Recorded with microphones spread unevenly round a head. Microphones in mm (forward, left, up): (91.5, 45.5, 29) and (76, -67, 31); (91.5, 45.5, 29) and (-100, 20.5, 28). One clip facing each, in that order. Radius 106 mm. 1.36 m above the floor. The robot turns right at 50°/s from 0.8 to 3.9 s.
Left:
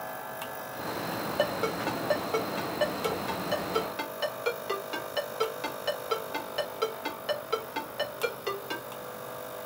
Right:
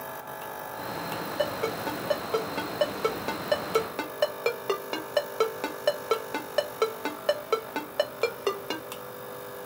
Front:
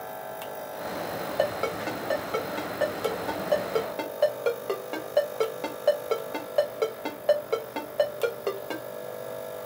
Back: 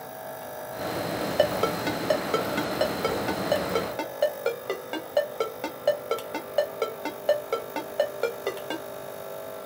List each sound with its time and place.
1.4 s a ringtone: 145° left, 0.9 m; by 8.8 s 90° right, 0.9 m